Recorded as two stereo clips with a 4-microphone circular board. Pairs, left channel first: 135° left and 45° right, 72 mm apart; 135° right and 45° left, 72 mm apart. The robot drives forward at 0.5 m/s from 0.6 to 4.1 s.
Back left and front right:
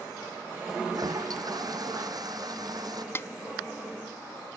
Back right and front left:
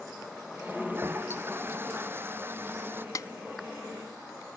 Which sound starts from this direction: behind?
A snare drum, at 3.1 s.